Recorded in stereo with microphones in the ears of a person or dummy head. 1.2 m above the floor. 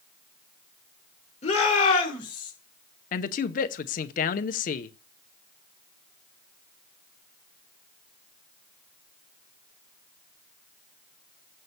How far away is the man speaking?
About 0.7 m.